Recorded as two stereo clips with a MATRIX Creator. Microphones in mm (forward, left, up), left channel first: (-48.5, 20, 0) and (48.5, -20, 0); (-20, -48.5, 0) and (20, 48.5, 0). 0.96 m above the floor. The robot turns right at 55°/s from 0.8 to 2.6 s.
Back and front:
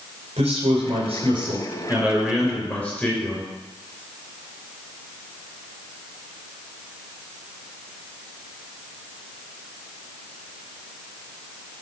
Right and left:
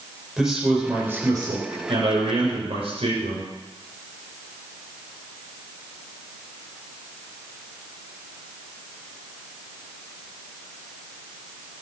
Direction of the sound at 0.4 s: 15° right.